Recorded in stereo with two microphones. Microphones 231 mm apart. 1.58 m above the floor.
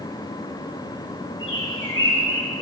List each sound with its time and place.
1.4 s a bird: 65° left (ahead or behind), 4.5 m